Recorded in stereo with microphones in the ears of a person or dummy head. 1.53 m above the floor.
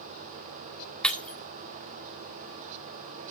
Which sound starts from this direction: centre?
Breaking glass, at 1.0 s.